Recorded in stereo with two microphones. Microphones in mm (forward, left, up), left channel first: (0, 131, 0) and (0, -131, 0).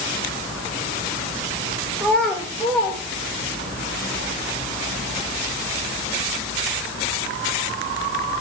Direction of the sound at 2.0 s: 5° left (ahead or behind).